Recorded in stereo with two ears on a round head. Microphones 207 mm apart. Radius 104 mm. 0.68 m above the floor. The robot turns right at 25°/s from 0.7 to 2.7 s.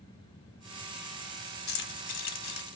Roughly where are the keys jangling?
Left.